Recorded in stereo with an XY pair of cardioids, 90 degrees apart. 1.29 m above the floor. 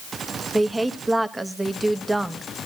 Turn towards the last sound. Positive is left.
turn(degrees=-20)